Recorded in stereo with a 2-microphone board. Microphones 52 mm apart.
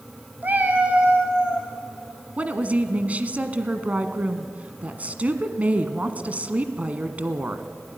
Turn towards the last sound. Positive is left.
turn(degrees=-30)  # may be behind; listen again after turning